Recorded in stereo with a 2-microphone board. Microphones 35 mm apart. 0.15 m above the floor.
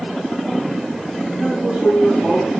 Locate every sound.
1.4 s a man speaking: 10° left (ahead or behind), 6.5 m; by 2.5 s centre (ahead or behind), 7.5 m